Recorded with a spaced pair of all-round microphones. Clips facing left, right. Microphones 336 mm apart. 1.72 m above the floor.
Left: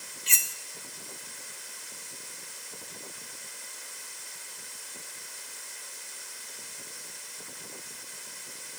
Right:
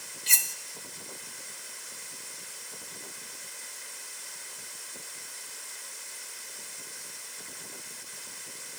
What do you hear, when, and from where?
0.3 s cutlery clinking: 50° right (ahead or behind), 1.2 m